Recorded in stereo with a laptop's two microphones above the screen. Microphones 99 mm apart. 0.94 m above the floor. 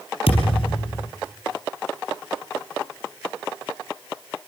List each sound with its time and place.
0.3 s a thud: 75° left (ahead or behind), 4 m